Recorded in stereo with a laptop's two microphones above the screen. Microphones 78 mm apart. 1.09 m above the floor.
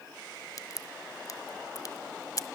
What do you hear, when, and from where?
0.6 s a crack: 50° left (ahead or behind), 1.4 m